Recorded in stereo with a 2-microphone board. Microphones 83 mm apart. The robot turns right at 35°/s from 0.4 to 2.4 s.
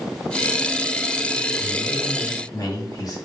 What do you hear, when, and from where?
1.6 s a man speaking: 80° left, 3.5 m; by 3.2 s 50° left (ahead or behind), 3.5 m